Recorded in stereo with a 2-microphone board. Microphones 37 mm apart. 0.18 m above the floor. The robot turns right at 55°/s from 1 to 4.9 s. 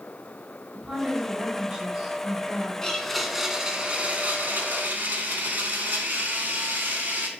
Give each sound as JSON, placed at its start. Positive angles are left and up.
{"t": 0.7, "sound": "a woman speaking", "side_deg": -10, "distance_m": 1.4}
{"t": 2.8, "sound": "a blender", "azimuth_deg": 160, "distance_m": 0.7}